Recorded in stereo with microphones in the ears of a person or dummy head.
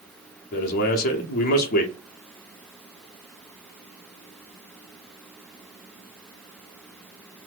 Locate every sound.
0.5 s a man speaking: 55° left (ahead or behind), 0.6 m